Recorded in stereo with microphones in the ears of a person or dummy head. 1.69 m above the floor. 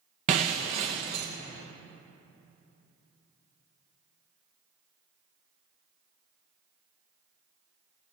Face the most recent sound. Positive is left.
turn(degrees=-25)  # may be behind; listen again after turning